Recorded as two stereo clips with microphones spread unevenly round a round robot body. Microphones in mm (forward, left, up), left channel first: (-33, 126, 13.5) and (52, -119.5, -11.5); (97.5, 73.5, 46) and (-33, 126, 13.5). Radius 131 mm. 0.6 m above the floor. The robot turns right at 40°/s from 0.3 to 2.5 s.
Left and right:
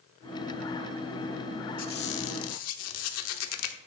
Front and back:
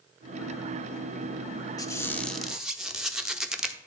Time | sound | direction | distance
1.8 | a squeak | 50° left | 0.8 m